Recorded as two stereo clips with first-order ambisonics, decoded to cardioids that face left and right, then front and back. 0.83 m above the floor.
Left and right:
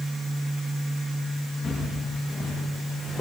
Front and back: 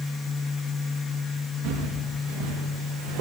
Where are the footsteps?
Straight behind, 5 m; by 3.2 s 175° left, 3.5 m.